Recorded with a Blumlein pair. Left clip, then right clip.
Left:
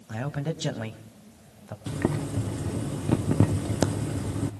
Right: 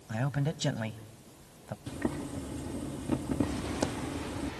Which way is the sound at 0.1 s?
5° left.